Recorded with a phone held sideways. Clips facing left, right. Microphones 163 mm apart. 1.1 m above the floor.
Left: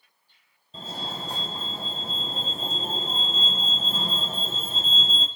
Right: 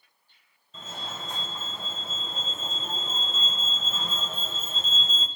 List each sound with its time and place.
0.7 s a fire alarm: 35° left (ahead or behind), 1.3 m